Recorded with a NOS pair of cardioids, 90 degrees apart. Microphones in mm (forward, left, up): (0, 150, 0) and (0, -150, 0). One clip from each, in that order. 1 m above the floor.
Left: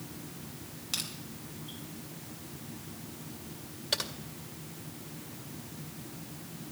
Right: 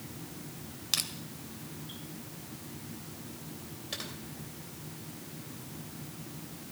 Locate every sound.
0.9 s crushing: 35° right, 2 m
3.9 s typing on a keyboard: 50° left, 2 m